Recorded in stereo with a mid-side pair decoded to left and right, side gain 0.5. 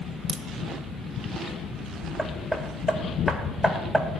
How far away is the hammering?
About 2.0 m.